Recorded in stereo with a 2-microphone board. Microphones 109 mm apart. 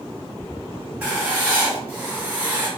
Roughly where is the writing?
Centre.